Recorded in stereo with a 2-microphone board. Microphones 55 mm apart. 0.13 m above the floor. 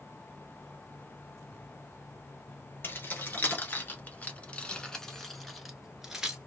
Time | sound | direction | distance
2.8 | keys jangling | 40° left (ahead or behind) | 1.2 m